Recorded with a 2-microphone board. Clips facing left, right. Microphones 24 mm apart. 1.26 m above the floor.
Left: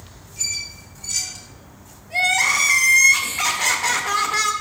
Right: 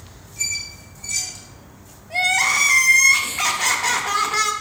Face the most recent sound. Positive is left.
turn(degrees=-10)  # may be behind; listen again after turning